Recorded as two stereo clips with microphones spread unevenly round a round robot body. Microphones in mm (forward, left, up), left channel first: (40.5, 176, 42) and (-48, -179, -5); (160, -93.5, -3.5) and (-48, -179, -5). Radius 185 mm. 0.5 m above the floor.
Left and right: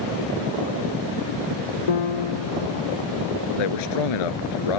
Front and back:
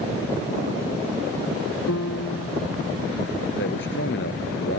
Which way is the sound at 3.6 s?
85° left.